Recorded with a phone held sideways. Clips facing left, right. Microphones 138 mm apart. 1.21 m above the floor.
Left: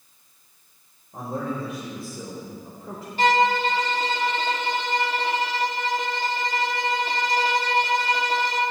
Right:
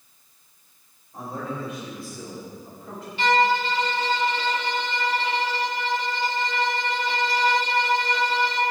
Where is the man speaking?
50° left (ahead or behind), 5 m; by 3.1 s 35° left (ahead or behind), 4.5 m.